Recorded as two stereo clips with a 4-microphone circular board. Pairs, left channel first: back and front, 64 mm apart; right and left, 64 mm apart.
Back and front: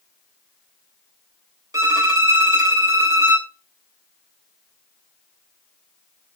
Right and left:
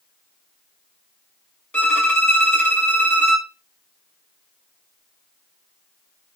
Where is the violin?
25° right, 1.0 m.